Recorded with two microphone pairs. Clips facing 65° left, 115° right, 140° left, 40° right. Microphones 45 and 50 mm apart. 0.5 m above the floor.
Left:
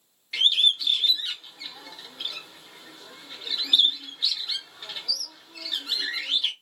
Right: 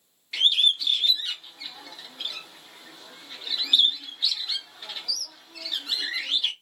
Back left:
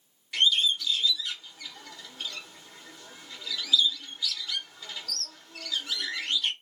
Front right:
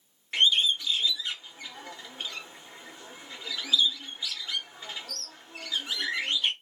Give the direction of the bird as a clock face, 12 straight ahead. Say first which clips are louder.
Even, front right 1 dB; 1 o'clock.